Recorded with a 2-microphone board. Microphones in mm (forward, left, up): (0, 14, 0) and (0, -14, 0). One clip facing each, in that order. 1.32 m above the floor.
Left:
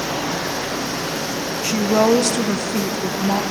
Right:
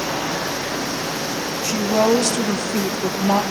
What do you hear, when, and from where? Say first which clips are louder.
1.6 s a woman speaking: left 2 dB; 35° left (ahead or behind), 1.4 m; by 3.4 s 40° right (ahead or behind), 1.0 m